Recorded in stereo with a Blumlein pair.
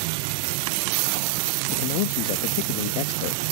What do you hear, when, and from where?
1.7 s a man speaking: 45° left